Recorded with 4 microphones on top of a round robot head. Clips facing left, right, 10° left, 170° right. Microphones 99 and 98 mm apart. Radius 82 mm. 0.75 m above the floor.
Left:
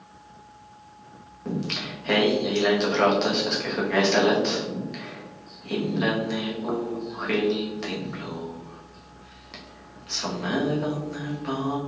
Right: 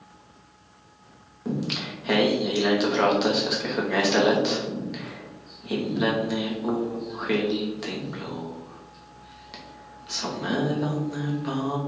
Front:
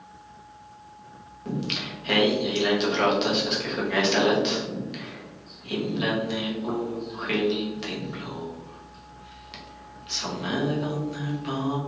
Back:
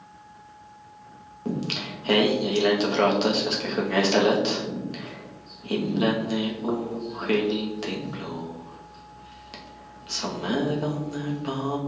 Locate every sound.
1.4 s singing: 170° right, 1.0 m